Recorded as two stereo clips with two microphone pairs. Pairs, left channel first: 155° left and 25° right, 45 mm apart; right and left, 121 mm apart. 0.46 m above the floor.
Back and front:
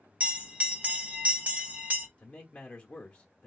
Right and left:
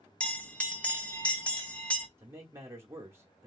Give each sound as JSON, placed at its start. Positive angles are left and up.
{"t": 0.2, "sound": "a bell", "azimuth_deg": -25, "distance_m": 0.7}
{"t": 2.2, "sound": "a man speaking", "azimuth_deg": 135, "distance_m": 0.9}